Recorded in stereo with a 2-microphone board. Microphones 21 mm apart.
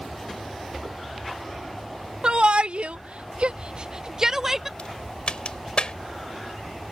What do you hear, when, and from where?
2.2 s a shout: 55° right (ahead or behind); by 4.7 s 20° right (ahead or behind)
4.8 s a crack: 50° left (ahead or behind)